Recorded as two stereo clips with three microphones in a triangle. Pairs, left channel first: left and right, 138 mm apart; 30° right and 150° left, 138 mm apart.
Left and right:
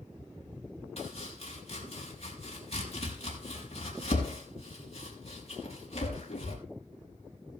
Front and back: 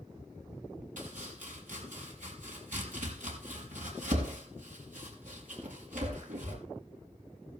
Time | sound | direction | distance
1.0 | chopping | 130° left | 5 m